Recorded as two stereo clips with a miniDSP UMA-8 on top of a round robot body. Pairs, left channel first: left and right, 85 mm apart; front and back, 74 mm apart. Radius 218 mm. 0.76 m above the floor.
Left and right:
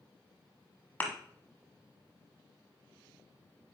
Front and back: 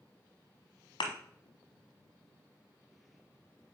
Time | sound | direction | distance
1.0 | a thud | 20° left | 1.1 m